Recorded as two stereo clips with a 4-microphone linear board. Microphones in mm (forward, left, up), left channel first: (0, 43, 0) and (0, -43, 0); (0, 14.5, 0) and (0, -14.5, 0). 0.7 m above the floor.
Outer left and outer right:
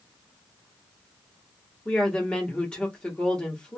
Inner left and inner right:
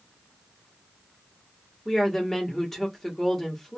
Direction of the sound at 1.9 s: 10° left (ahead or behind).